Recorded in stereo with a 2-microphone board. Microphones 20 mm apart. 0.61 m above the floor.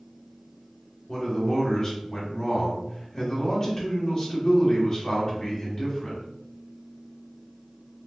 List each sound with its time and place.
1.1 s a man speaking: 30° left (ahead or behind), 1.3 m